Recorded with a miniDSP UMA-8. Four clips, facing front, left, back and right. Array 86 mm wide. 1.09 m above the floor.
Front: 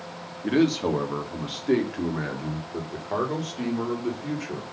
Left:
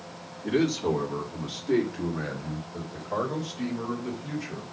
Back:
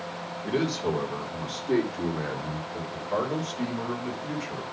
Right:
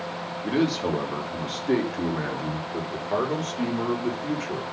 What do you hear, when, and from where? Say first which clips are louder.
0.4 s a man speaking: right 1 dB, front 5 dB; 20° right, 2 m; by 4.6 s 60° right, 4 m